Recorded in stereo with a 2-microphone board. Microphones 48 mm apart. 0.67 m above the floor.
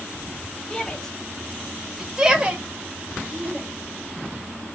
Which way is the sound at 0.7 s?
15° left (ahead or behind).